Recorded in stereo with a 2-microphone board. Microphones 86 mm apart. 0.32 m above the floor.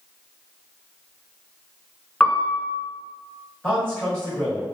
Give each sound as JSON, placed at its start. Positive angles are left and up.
{"t": 2.2, "sound": "a piano", "side_deg": 10, "distance_m": 0.5}
{"t": 3.6, "sound": "a man speaking", "side_deg": 15, "distance_m": 1.2}